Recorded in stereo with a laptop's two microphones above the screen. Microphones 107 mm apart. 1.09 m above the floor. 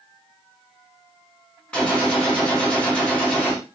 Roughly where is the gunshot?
Centre.